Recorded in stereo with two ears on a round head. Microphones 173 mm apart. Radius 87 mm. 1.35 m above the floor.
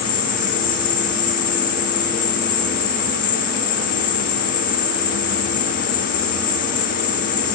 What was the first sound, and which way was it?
An insect, 25° left (ahead or behind).